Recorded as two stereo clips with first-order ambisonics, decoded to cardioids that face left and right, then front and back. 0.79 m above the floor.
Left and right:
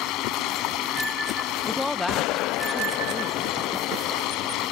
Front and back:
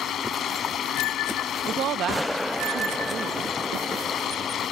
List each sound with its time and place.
0.0 s running water: 55° left
1.7 s a woman speaking: 165° left